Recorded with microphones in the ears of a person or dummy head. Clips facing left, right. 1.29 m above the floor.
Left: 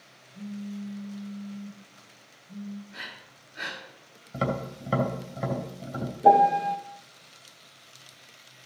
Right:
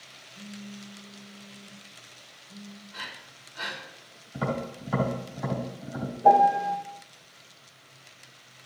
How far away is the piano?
About 0.7 m.